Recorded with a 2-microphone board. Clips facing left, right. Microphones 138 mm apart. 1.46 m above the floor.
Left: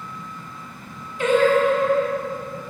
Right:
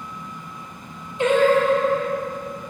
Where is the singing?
25° right (ahead or behind), 1.8 m.